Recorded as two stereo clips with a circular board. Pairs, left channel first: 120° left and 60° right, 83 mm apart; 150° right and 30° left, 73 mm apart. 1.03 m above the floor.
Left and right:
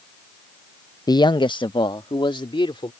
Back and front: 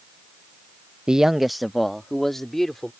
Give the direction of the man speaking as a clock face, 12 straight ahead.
9 o'clock.